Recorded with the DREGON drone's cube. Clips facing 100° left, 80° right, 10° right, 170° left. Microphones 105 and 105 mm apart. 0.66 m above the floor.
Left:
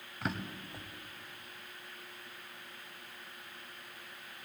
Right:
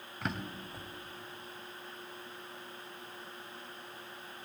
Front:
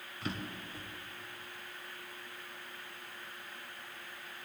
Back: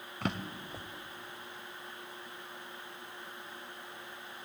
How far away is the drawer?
About 0.9 m.